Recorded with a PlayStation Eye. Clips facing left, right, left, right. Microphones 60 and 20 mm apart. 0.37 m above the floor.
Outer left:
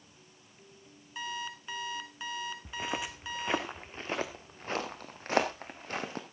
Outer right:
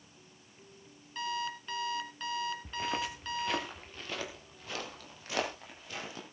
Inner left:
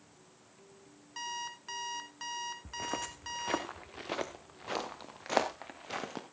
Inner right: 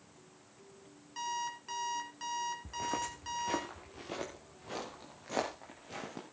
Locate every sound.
1.2 s an alarm clock: 5° left (ahead or behind), 1.5 m
2.6 s footsteps: 5° left (ahead or behind), 1.4 m; by 6.2 s 50° left (ahead or behind), 3.5 m